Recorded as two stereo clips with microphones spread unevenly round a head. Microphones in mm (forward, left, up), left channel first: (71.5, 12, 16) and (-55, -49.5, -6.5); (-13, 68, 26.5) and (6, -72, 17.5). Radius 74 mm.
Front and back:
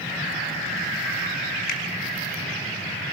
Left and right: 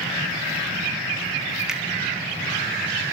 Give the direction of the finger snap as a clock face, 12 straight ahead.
12 o'clock.